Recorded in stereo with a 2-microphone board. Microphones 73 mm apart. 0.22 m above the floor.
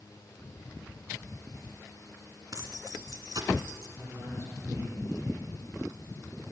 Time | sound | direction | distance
2.5 | keys jangling | 60° right (ahead or behind) | 1.3 m
4.0 | a man speaking | 40° right (ahead or behind) | 7 m